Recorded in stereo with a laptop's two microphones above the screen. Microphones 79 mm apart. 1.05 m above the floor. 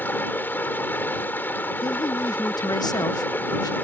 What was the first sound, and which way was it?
Running water, 25° left (ahead or behind).